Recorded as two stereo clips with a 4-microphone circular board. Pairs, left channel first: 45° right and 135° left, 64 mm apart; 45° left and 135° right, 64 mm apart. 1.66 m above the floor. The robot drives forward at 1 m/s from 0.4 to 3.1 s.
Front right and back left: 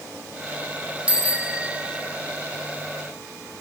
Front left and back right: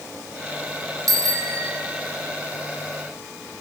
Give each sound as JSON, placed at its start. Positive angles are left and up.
{"t": 1.1, "sound": "a bicycle bell", "azimuth_deg": -155, "distance_m": 2.5}